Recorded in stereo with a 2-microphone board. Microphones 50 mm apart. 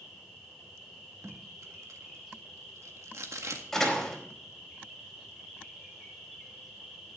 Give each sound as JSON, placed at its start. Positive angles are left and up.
{"t": 0.0, "sound": "an insect", "side_deg": 10, "distance_m": 6.0}
{"t": 1.2, "sound": "tape being pulled", "side_deg": -80, "distance_m": 1.7}
{"t": 3.7, "sound": "a door slam", "side_deg": 5, "distance_m": 4.0}